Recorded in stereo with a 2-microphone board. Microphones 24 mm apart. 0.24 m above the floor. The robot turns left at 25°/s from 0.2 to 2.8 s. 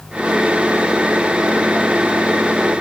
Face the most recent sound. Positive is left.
No sound to turn to.